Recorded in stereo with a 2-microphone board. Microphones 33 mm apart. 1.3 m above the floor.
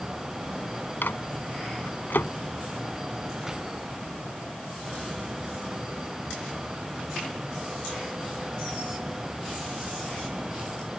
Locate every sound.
1.0 s a microwave: 75° left (ahead or behind)